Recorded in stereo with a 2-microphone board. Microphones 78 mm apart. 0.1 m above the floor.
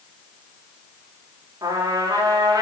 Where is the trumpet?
45° right (ahead or behind), 5.5 m.